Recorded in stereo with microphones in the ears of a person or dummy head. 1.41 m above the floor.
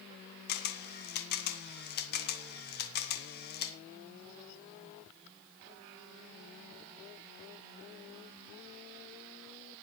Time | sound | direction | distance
0.5 | a camera shutter | 45° left (ahead or behind) | 1.6 m